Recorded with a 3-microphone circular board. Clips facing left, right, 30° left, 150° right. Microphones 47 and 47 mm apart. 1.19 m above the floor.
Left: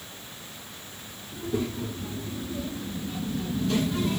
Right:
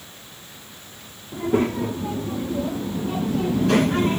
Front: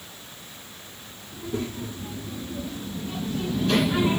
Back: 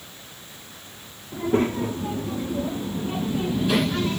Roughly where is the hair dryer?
No hair dryer in this recording.